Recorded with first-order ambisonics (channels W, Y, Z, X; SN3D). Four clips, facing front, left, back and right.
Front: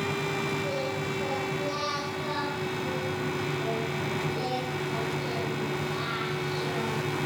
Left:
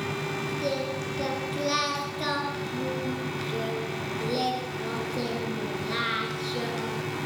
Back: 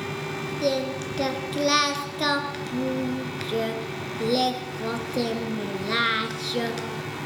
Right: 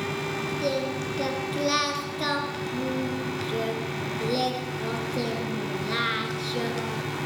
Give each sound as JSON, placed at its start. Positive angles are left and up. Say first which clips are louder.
{"t": 0.6, "sound": "singing", "louder": "right 3 dB, back 5 dB", "azimuth_deg": -170, "distance_m": 2.5}